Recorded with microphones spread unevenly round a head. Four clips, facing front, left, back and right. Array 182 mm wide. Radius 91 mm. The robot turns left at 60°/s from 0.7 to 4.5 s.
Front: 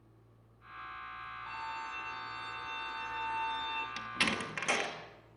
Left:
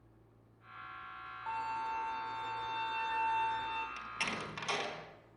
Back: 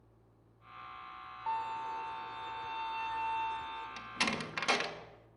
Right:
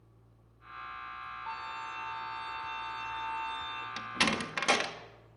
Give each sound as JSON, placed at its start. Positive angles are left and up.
{"t": 1.5, "sound": "a violin", "azimuth_deg": 180, "distance_m": 5.5}
{"t": 4.0, "sound": "a door slam", "azimuth_deg": -65, "distance_m": 2.0}